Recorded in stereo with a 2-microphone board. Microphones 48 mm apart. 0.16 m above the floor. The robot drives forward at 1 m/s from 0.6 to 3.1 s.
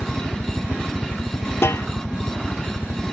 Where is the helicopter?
60° left (ahead or behind).